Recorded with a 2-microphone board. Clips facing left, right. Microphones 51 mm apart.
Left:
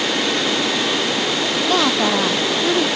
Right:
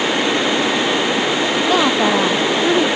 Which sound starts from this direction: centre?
A woman speaking, at 1.7 s.